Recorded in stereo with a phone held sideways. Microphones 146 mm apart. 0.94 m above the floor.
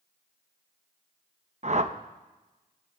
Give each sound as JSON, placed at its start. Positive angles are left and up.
{"t": 1.6, "sound": "a whoosh", "side_deg": -50, "distance_m": 0.8}